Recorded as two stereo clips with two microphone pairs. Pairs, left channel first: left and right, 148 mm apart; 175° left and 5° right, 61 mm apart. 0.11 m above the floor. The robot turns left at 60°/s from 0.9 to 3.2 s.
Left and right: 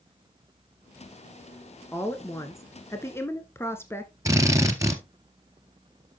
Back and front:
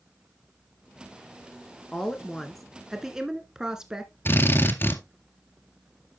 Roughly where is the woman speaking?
Behind left.